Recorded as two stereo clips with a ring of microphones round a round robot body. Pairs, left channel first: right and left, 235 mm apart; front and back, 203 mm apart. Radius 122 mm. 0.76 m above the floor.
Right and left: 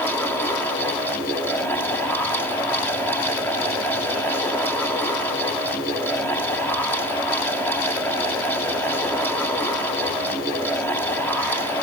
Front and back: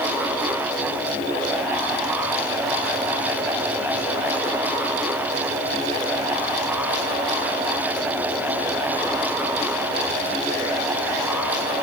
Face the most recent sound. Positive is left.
No sound to turn to.